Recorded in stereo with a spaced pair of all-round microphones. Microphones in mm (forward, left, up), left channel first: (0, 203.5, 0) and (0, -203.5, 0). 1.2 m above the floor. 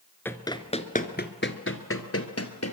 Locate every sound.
0.2 s running footsteps: 5° left (ahead or behind), 1.2 m; by 2.7 s 40° left (ahead or behind), 1.8 m